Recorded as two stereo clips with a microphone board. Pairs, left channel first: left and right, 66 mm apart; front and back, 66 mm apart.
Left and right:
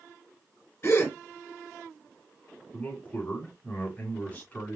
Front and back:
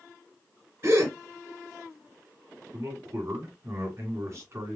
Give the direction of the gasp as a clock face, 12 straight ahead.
8 o'clock.